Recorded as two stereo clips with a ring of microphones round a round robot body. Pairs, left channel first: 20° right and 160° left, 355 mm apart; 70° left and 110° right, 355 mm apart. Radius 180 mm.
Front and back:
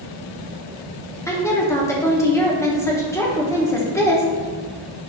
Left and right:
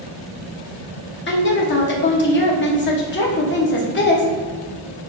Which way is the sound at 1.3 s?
50° left.